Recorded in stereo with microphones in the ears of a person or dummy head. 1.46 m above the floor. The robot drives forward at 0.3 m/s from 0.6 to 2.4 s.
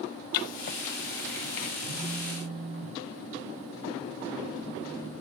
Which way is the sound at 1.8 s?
50° right (ahead or behind).